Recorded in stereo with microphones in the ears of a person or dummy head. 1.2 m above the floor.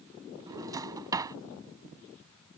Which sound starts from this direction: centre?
A drawer, at 0.5 s.